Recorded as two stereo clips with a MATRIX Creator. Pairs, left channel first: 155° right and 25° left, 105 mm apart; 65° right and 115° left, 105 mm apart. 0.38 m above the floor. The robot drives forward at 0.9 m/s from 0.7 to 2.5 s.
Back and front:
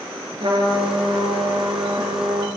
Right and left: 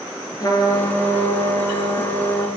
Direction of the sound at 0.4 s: 15° right.